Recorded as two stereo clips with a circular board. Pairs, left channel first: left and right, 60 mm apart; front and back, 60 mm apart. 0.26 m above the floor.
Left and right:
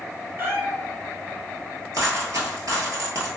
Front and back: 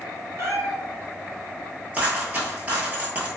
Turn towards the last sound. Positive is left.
turn(degrees=-115)